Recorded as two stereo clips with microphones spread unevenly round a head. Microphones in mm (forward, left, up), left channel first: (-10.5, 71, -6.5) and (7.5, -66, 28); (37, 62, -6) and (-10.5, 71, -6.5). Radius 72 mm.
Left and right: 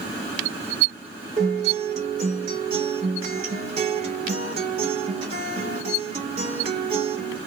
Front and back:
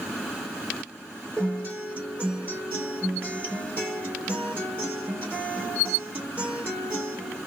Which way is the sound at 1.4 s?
120° right.